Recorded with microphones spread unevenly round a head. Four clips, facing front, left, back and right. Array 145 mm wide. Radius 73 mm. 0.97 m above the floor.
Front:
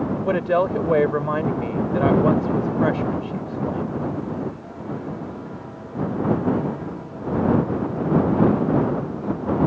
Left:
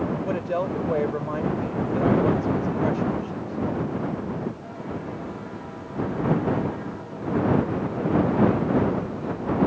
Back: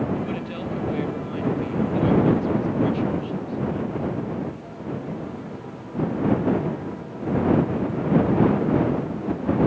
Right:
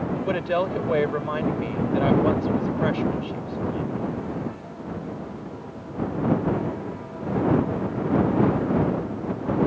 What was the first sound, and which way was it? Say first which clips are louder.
A woman speaking: right 2 dB, front 10 dB; 5° right.